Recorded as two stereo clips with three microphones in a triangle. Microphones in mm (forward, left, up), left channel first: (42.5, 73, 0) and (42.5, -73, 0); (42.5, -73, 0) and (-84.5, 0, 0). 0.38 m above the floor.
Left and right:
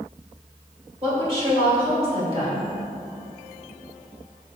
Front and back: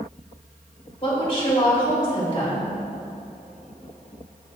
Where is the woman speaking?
60° right, 1.9 m.